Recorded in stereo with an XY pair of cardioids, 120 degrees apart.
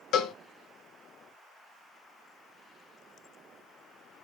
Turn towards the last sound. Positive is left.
turn(degrees=65)